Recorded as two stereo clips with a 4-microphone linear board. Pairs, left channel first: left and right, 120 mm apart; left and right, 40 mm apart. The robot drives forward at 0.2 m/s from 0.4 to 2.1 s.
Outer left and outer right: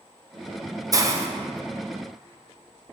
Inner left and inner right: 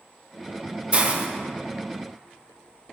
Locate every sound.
0.9 s a hiss: 30° right (ahead or behind), 0.6 m; by 1.3 s 25° right (ahead or behind), 0.7 m